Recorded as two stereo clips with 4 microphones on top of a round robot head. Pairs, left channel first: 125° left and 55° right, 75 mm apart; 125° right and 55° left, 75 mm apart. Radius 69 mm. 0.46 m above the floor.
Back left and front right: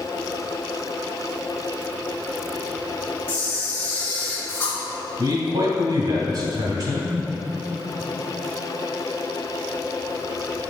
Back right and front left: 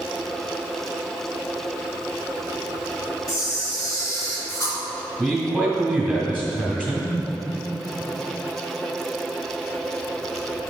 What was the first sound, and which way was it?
A camera shutter, 165° right.